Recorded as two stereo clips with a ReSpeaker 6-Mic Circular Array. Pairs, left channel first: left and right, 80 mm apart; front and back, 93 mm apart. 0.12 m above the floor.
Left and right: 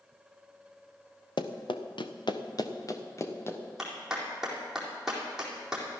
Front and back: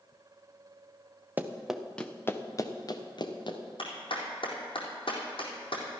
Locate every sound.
1.4 s running footsteps: 110° left, 1.4 m; by 3.6 s 30° left, 2.5 m
3.8 s a clap: 5° right, 4 m